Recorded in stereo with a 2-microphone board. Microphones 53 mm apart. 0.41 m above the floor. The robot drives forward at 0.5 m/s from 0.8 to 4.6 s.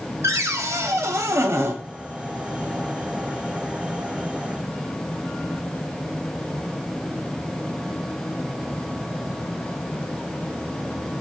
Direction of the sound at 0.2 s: 75° right (ahead or behind).